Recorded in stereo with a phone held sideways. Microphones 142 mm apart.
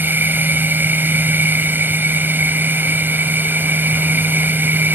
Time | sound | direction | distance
0.0 | a machine running | 15° right (ahead or behind) | ?